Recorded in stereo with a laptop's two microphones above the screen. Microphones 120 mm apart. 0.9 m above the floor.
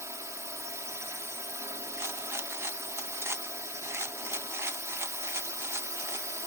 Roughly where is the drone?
Right.